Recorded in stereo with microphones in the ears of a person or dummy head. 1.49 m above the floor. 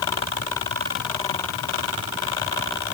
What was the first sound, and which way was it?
Only background noise.